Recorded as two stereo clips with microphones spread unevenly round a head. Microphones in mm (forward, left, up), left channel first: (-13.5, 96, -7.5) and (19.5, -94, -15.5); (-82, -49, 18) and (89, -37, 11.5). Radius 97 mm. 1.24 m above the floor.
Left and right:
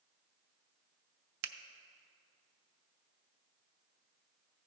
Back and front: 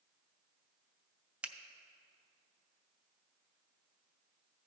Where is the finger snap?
80° right, 0.5 m.